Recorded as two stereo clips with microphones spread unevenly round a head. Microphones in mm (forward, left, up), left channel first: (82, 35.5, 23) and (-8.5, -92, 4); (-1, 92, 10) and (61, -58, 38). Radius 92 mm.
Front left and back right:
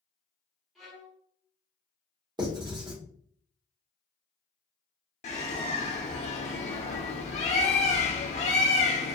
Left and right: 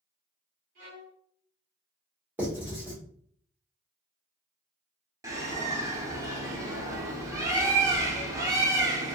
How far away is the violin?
About 1.6 m.